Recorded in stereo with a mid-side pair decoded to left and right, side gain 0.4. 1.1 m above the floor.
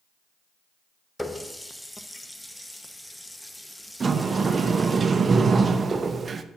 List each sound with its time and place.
1.2 s a running tap: 10° left, 0.9 m
4.0 s a sliding door: 40° right, 0.6 m